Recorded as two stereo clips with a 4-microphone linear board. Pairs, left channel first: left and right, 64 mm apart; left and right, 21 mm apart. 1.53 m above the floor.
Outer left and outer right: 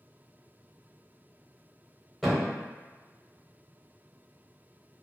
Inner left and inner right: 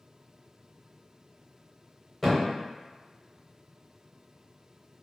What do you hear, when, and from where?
2.2 s a thud: 5° right (ahead or behind), 0.8 m